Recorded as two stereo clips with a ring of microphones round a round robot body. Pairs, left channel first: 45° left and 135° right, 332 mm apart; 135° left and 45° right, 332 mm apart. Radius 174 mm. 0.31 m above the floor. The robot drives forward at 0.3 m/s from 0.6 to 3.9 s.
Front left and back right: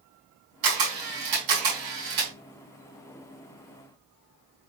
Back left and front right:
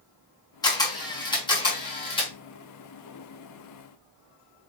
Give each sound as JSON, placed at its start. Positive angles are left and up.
{"t": 0.6, "sound": "a camera shutter", "azimuth_deg": -145, "distance_m": 4.0}